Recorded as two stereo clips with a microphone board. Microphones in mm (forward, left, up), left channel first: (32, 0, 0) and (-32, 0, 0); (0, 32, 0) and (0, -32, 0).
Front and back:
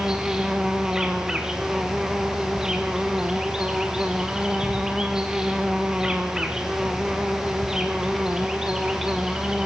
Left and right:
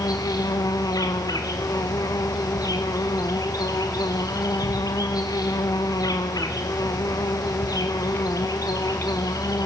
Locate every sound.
0.0 s an insect: 100° left, 2.0 m